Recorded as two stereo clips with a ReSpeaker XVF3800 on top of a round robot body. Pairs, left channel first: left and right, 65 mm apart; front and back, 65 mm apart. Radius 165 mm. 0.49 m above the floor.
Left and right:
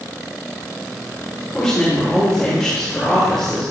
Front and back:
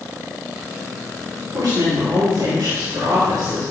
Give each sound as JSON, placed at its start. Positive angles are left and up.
{"t": 1.5, "sound": "a woman speaking", "azimuth_deg": 175, "distance_m": 4.0}